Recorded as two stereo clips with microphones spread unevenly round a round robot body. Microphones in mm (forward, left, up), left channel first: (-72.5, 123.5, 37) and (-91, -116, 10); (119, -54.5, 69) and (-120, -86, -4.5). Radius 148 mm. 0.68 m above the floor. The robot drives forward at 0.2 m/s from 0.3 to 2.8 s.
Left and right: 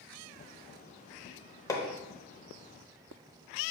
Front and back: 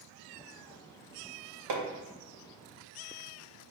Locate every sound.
1.7 s hammering: 160° left, 0.6 m